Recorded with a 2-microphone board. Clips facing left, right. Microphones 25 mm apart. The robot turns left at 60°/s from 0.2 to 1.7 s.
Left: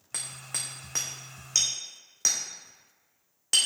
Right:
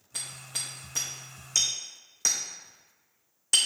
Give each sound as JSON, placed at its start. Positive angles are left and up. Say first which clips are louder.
{"t": 0.1, "sound": "hammering", "louder": "even", "side_deg": 75, "distance_m": 2.0}